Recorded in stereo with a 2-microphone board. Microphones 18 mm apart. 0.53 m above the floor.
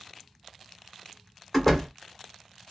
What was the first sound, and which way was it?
A door slam, 10° left (ahead or behind).